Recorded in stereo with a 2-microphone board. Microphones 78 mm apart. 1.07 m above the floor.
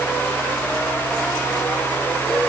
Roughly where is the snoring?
No snoring in this recording.